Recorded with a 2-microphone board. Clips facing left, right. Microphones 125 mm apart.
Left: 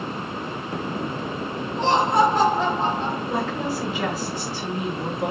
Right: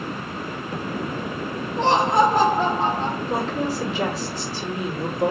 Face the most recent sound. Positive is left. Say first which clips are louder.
# right 1 dB
turn(degrees=-35)  # may be behind; listen again after turning